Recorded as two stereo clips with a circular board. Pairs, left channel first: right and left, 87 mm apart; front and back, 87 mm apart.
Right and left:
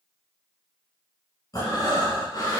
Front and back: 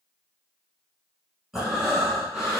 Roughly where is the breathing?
Right.